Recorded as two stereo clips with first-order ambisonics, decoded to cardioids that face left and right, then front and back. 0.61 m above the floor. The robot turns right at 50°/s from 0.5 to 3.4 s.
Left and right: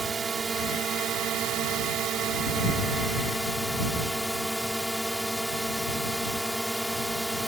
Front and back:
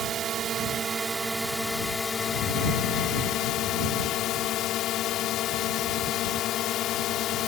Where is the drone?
150° right; by 7.5 s 5° right.